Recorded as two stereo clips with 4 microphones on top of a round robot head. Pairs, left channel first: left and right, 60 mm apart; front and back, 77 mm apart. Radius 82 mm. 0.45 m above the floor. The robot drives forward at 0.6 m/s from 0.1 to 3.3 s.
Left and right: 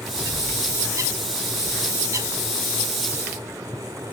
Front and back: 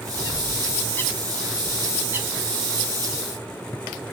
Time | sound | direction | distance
0.2 | a bird | 40° right | 1.1 m